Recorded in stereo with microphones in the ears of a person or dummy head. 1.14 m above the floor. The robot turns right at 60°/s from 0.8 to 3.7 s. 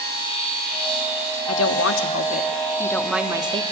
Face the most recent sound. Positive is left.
turn(degrees=-145)